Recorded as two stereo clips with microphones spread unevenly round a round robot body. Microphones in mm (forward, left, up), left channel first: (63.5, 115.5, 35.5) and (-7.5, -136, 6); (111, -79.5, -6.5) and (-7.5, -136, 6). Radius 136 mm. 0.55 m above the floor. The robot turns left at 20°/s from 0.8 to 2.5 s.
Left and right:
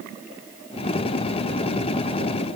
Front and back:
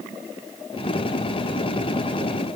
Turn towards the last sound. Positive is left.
No sound to turn to.